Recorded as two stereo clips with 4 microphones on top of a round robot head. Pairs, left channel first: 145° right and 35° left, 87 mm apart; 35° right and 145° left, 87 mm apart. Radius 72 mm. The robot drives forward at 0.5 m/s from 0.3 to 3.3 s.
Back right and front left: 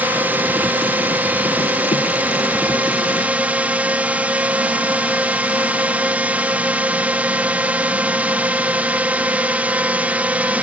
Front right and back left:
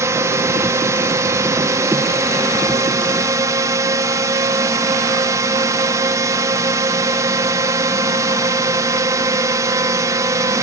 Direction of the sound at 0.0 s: 100° left.